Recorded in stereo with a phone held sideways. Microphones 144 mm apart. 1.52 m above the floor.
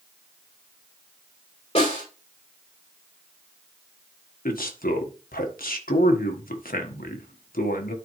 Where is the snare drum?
45° left (ahead or behind), 6 m.